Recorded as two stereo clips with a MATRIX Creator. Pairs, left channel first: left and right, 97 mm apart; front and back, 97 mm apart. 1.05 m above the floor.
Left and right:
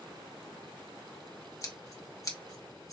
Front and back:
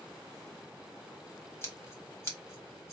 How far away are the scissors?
About 1.0 m.